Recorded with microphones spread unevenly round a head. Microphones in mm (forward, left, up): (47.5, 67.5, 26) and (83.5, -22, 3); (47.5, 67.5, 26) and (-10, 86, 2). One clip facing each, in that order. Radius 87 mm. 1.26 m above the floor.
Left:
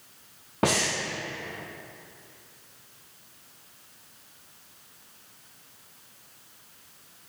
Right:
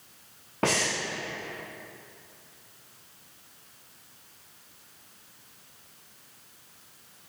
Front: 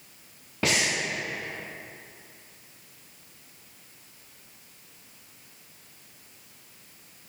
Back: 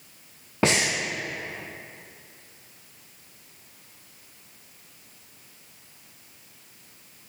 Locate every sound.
0.6 s breathing: 160° right, 0.6 m